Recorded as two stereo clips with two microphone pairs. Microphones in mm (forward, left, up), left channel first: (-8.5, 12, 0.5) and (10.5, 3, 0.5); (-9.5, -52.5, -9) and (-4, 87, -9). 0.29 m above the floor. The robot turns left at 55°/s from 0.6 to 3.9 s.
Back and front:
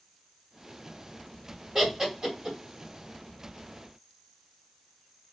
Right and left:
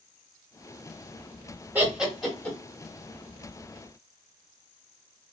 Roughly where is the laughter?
Ahead left.